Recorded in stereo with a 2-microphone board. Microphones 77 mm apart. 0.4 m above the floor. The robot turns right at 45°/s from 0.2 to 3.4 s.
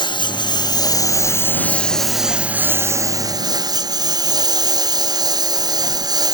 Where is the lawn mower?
95° left; by 6.3 s 120° right.